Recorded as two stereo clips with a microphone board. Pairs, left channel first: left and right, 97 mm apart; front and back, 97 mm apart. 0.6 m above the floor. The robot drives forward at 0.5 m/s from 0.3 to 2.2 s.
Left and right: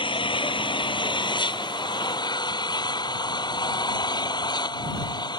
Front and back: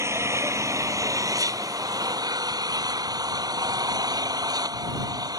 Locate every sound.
0.0 s an engine running: 120° left; by 5.4 s 130° left